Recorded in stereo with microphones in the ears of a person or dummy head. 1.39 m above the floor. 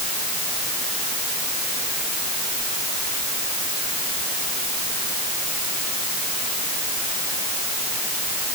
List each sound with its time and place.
Only background noise.